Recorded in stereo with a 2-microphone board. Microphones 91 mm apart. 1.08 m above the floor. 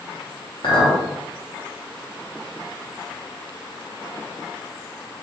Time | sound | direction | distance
0.6 | a clink | 65° left (ahead or behind) | 0.9 m